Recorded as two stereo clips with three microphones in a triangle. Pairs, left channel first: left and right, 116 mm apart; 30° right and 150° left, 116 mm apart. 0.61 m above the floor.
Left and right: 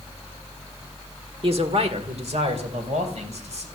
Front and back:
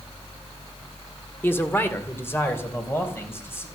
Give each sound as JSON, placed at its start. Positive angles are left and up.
{"t": 1.4, "sound": "a man speaking", "azimuth_deg": -100, "distance_m": 1.5}